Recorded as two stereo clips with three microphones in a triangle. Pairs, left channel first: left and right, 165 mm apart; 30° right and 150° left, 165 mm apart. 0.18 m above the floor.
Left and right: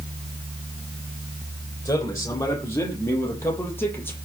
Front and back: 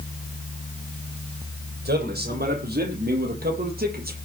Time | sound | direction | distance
1.9 | a man speaking | 160° left | 7 m